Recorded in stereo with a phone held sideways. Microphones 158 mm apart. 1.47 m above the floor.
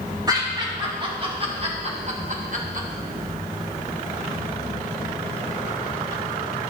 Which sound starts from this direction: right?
Laughter, at 0.3 s.